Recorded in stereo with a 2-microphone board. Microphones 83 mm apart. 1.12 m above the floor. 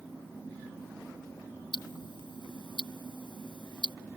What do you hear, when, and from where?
1.7 s ticking: 70° left (ahead or behind)